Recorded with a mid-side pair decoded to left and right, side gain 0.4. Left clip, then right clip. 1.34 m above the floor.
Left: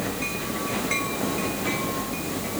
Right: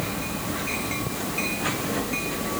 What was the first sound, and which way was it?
Only background noise.